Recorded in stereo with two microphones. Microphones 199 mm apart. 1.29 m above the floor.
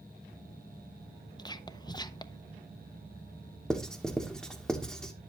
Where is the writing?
5° left (ahead or behind), 1.1 m.